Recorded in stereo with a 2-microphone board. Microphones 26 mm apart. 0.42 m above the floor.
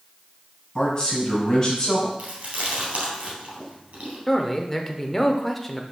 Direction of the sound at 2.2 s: 60° right (ahead or behind).